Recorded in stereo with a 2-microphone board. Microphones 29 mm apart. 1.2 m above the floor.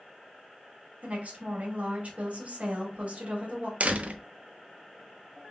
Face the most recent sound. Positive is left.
turn(degrees=-55)  # may be behind; listen again after turning